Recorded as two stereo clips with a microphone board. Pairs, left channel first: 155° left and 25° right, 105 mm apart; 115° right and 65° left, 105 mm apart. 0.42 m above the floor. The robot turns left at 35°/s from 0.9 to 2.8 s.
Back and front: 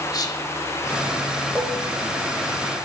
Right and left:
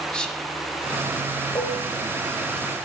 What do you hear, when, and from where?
0.1 s whispering: 170° left, 1.0 m
1.6 s dishes clattering: 95° right, 1.1 m; by 1.9 s 105° right, 1.1 m